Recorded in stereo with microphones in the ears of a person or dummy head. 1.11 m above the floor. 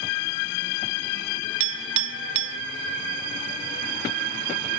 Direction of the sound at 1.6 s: 60° right (ahead or behind).